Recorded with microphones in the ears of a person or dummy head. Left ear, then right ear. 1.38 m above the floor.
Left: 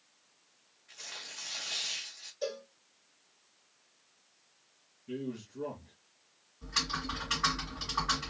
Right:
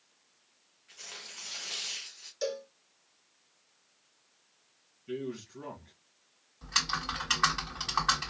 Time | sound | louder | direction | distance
0.9 | tearing paper | left 1 dB | 10° right (ahead or behind) | 1.1 m
2.4 | a cowbell | right 3 dB | 70° right (ahead or behind) | 2 m
5.1 | a man speaking | right 2 dB | 35° right (ahead or behind) | 1.9 m
6.6 | typing on a keyboard | right 3 dB | 55° right (ahead or behind) | 2.0 m